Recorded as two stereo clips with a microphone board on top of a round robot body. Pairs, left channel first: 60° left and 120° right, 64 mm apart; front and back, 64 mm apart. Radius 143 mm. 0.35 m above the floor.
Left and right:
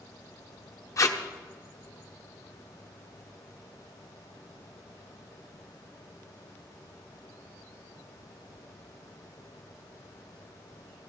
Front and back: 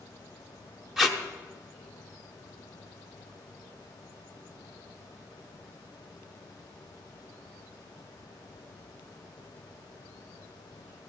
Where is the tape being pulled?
95° left, 1.3 m.